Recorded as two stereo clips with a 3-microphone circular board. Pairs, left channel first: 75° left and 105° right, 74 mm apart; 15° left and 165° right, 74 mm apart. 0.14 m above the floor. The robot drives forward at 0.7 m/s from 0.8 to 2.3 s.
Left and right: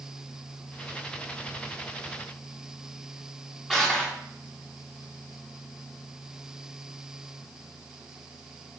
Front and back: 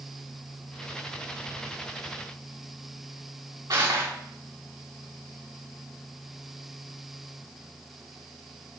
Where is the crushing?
155° left, 4.5 m.